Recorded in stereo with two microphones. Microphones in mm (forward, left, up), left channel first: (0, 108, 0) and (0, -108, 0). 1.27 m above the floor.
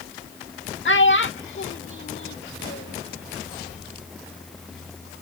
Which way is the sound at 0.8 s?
60° left (ahead or behind).